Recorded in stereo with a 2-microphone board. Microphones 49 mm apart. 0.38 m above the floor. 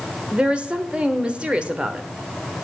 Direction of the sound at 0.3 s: 20° right (ahead or behind).